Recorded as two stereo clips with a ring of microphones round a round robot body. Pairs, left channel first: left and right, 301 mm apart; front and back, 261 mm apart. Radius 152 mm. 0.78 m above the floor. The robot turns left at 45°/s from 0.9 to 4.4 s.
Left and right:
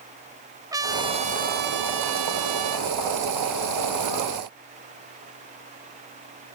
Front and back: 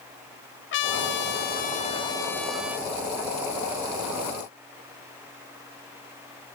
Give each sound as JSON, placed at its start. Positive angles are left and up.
{"t": 0.7, "sound": "a trumpet", "azimuth_deg": -15, "distance_m": 1.3}